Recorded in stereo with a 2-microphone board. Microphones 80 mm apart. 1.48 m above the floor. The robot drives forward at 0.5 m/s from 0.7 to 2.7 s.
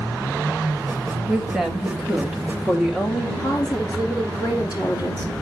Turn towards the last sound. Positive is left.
turn(degrees=50)  # may be behind; listen again after turning